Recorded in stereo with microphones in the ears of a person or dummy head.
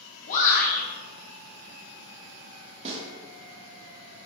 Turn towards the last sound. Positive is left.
turn(degrees=-35)  # may be behind; listen again after turning